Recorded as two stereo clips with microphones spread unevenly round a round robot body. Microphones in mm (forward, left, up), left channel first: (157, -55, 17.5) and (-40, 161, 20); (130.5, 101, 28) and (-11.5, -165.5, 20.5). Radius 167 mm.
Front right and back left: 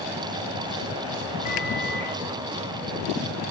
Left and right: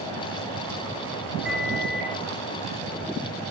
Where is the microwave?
25° right, 2.0 m.